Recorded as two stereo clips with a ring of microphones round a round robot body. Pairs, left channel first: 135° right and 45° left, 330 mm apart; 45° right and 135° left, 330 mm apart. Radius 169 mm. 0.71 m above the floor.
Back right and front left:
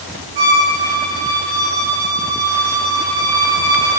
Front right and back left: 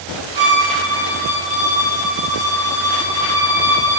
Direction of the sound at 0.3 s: 55° left.